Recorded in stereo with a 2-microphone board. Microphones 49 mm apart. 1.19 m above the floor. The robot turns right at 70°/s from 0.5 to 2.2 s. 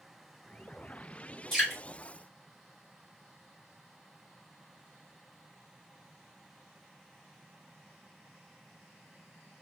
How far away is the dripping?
About 1.9 m.